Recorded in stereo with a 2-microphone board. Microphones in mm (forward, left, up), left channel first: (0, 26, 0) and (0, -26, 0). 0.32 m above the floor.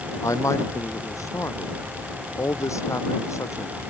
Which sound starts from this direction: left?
A man speaking, at 0.2 s.